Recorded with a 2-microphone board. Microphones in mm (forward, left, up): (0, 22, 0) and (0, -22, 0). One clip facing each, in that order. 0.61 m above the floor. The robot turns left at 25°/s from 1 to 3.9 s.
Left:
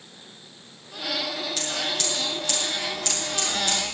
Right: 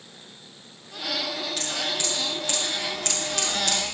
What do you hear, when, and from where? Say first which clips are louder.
1.6 s scissors: left 1 dB; 10° right (ahead or behind), 7.5 m; by 3.8 s 65° right (ahead or behind), 7.5 m